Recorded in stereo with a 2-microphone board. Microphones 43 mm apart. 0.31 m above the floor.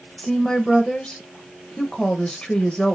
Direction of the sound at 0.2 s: 20° left (ahead or behind).